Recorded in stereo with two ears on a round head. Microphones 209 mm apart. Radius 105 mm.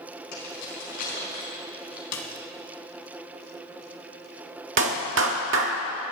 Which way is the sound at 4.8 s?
55° right (ahead or behind).